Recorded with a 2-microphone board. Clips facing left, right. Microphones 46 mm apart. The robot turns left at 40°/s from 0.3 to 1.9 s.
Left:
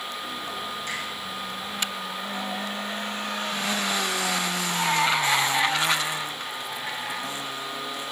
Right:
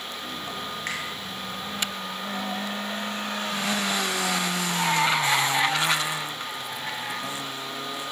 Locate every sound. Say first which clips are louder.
0.9 s a finger snap: right 2 dB; 60° right (ahead or behind), 3 m; by 1.0 s 55° right (ahead or behind), 3 m